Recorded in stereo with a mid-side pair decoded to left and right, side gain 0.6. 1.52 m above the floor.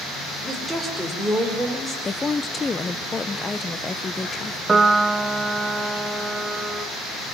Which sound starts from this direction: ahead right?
A piano, at 4.7 s.